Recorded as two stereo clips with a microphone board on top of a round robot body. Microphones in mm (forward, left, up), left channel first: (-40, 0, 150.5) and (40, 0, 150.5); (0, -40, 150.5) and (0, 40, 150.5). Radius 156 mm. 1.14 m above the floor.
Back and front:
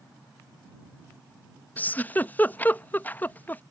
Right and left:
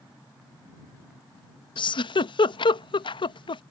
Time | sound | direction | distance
1.8 | a giggle | 110° right | ?